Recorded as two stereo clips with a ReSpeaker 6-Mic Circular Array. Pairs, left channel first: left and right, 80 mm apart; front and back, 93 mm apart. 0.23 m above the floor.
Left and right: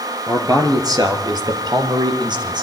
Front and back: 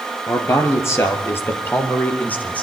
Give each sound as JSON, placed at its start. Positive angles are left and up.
{"t": 0.3, "sound": "a man speaking", "azimuth_deg": -50, "distance_m": 4.0}